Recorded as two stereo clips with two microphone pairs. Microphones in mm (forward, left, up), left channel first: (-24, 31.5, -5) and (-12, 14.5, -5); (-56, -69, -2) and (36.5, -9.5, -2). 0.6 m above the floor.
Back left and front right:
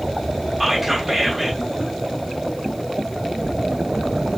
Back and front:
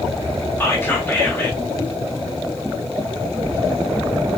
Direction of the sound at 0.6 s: 130° right.